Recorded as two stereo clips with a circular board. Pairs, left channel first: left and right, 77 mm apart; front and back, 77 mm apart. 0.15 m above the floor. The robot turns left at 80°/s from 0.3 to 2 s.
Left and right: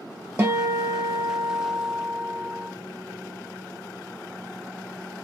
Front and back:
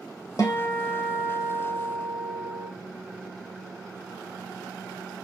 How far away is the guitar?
About 0.7 m.